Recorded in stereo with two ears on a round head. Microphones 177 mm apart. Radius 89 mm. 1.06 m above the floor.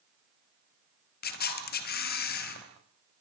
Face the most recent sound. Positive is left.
turn(degrees=50)  # may be behind; listen again after turning